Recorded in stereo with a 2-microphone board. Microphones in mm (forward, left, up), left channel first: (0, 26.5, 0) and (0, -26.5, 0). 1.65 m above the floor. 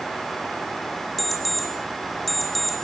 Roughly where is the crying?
I don't hear crying.